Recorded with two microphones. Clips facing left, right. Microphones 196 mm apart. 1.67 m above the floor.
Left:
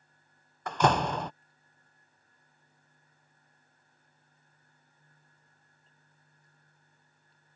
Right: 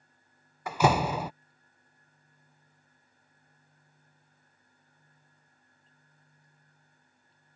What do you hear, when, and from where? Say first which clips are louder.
0.7 s a door slam: right 1 dB; 5° right (ahead or behind)